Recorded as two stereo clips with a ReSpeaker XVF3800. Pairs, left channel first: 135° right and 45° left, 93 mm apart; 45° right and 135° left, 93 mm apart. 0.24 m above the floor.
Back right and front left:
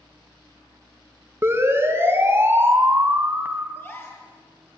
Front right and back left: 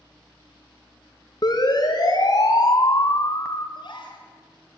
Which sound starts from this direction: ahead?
A siren, at 1.4 s.